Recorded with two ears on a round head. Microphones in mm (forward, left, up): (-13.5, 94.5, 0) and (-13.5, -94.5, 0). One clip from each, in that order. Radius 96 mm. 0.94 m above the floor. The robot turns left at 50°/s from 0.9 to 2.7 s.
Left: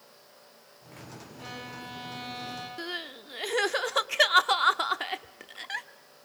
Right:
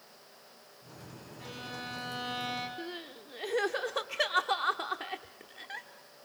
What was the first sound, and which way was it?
A violin, 20° left.